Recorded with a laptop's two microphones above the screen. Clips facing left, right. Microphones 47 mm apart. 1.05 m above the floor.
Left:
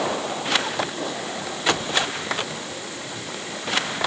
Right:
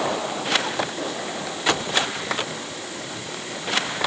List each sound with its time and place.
Only background noise.